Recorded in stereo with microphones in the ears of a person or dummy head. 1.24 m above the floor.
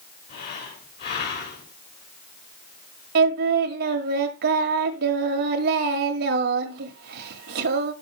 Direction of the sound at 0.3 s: 60° left (ahead or behind).